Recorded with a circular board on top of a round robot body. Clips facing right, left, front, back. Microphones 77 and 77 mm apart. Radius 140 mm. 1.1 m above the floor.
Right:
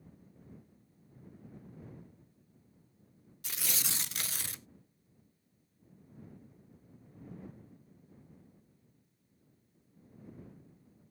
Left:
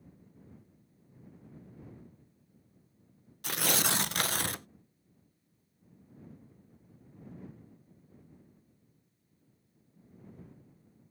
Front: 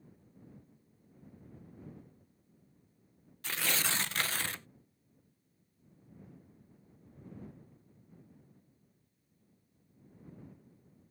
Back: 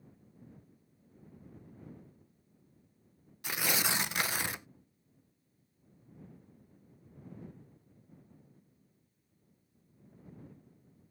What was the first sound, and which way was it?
Tearing paper, 105° left.